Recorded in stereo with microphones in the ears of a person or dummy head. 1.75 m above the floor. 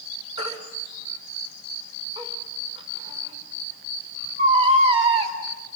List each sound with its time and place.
0.4 s a baby crying: 30° right (ahead or behind), 4 m